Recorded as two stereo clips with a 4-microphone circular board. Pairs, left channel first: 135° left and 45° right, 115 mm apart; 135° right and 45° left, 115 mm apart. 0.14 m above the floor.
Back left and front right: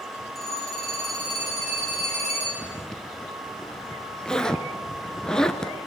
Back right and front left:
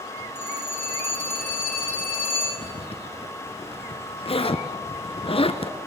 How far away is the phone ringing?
About 7 m.